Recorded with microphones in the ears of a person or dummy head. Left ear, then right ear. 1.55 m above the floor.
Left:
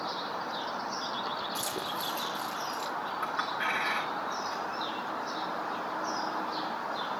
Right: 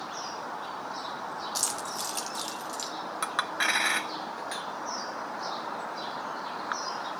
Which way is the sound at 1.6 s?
35° right (ahead or behind).